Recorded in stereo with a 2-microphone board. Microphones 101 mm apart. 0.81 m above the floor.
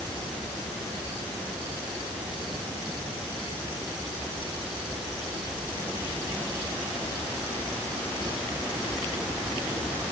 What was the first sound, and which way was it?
Only background noise.